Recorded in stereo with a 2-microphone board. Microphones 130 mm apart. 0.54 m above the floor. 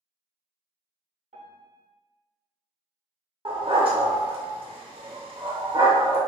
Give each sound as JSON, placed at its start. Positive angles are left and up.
{"t": 1.3, "sound": "a piano", "side_deg": -65, "distance_m": 0.8}
{"t": 3.5, "sound": "a dog barking", "side_deg": -40, "distance_m": 0.6}